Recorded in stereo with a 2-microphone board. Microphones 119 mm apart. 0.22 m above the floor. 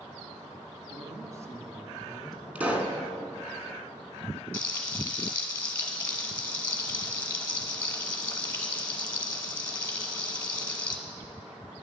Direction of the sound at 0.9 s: 40° right (ahead or behind).